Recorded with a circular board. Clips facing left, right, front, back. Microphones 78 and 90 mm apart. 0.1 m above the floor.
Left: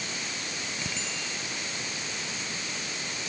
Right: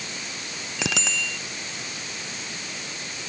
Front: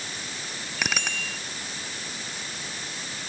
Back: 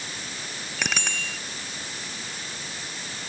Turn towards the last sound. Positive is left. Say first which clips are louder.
# right 7 dB, even
turn(degrees=-90)